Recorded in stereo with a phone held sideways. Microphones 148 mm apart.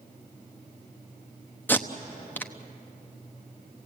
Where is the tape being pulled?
15° left (ahead or behind), 0.9 m.